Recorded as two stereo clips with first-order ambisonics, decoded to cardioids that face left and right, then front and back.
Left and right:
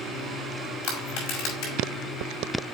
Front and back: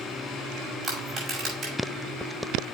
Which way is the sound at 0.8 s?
115° left.